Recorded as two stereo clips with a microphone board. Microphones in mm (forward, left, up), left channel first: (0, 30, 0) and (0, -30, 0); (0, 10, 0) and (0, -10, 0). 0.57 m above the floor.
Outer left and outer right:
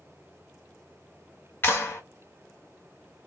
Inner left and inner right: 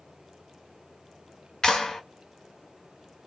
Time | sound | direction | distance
1.6 | a clap | 40° left (ahead or behind) | 1.3 m